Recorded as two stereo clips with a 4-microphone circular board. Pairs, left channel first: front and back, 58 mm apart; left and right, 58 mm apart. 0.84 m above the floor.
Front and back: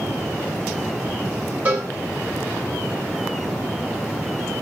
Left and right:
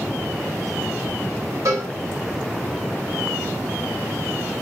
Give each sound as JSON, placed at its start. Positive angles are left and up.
{"t": 1.6, "sound": "a cowbell", "azimuth_deg": -120, "distance_m": 6.5}